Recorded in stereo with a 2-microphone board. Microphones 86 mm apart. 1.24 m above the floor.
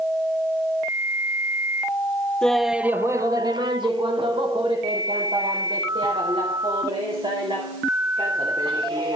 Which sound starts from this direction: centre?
Laughter, at 2.4 s.